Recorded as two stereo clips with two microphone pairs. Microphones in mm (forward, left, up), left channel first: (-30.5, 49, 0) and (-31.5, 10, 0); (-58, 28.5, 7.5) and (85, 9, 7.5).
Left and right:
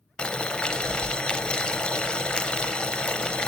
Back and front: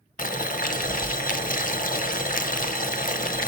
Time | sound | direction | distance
0.2 | boiling | 150° left | 0.5 m